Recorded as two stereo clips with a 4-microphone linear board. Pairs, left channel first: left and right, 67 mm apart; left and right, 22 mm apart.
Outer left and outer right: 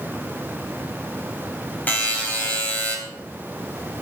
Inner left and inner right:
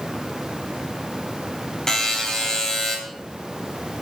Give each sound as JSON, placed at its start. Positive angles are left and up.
{"t": 1.9, "sound": "a buzzer", "side_deg": 25, "distance_m": 3.5}